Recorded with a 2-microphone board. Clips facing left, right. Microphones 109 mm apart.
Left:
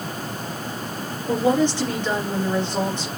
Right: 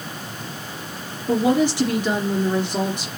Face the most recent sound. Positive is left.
turn(degrees=-10)  # may be behind; listen again after turning